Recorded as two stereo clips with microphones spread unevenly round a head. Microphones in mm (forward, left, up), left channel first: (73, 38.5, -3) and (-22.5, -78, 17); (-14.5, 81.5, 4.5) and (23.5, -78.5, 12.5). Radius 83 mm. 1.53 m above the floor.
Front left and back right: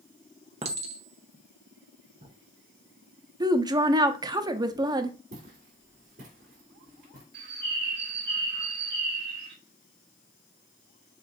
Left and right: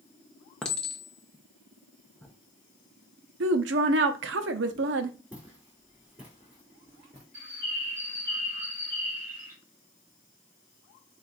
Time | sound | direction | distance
0.6 | a clink | 170° right | 0.7 m
3.4 | a woman speaking | 65° right | 0.7 m
5.3 | footsteps | 155° right | 3 m
7.3 | a bird | 150° right | 2.5 m